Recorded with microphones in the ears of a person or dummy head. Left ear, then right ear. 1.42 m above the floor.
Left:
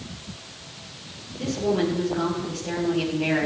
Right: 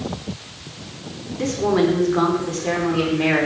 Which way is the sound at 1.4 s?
55° right (ahead or behind).